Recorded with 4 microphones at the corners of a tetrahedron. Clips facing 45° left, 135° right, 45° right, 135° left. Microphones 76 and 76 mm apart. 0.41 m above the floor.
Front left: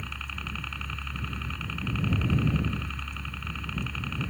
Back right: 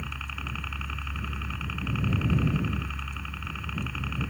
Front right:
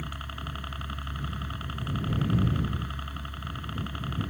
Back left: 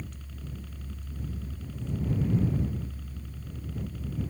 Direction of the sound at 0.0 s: 50° right.